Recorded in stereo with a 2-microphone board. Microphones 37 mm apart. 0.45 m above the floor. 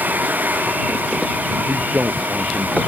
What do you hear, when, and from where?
1.7 s a man speaking: 45° right (ahead or behind)